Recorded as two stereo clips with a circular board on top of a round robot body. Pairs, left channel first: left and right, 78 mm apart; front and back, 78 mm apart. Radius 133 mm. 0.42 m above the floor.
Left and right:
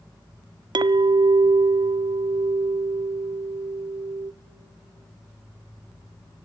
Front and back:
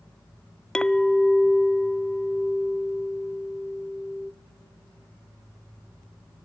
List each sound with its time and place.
0.8 s a clink: 80° right, 0.6 m